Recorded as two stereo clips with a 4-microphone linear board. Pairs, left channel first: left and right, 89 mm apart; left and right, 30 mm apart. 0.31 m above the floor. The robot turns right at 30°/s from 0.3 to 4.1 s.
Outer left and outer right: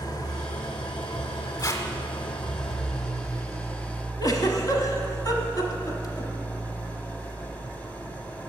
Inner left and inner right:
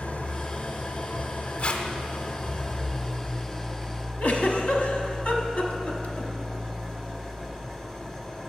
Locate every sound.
0.0 s an engine running: 45° left, 0.8 m; by 8.5 s 160° left, 0.8 m
1.6 s tape being pulled: 45° left (ahead or behind), 0.9 m; by 1.8 s 40° left (ahead or behind), 0.9 m
4.2 s a giggle: 45° left (ahead or behind), 1.0 m